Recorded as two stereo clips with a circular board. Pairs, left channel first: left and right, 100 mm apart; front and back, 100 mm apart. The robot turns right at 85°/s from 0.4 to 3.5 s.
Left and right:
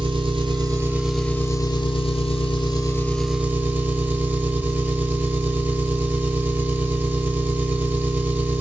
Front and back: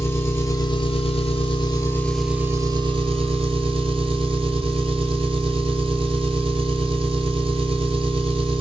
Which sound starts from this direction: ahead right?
An engine running, at 0.0 s.